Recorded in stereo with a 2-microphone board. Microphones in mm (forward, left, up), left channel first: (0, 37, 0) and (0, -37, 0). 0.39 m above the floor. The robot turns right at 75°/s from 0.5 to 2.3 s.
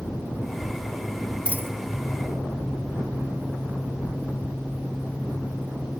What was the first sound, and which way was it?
A dropped coin, 15° right (ahead or behind).